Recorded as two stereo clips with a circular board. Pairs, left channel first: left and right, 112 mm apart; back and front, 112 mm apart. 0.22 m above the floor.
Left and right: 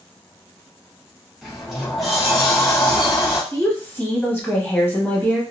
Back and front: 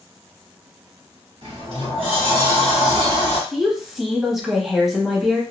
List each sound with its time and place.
1.4 s a sliding door: straight ahead, 1.1 m
3.5 s a woman speaking: 80° left, 0.9 m